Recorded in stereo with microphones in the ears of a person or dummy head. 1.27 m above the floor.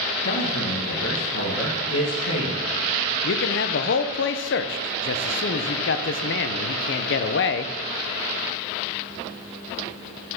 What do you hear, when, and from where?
0.2 s a man speaking: 75° left (ahead or behind), 1.5 m
3.2 s a man speaking: 55° left (ahead or behind), 0.6 m